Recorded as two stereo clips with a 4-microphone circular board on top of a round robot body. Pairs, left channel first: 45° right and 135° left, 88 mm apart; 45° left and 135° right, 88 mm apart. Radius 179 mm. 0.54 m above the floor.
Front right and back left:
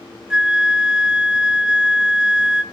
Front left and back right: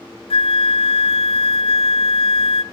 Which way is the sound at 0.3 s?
55° left.